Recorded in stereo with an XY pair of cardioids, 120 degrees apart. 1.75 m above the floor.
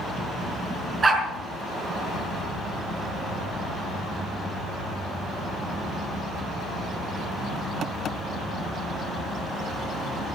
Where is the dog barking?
25° right, 5 m.